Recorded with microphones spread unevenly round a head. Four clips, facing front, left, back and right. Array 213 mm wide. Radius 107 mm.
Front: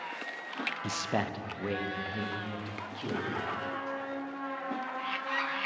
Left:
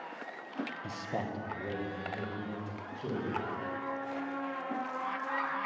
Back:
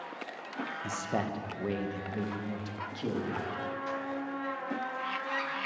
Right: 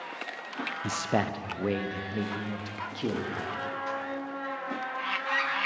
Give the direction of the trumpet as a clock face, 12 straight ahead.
4 o'clock.